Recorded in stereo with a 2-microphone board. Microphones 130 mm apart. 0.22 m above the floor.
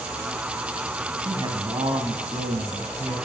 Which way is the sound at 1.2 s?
35° right (ahead or behind).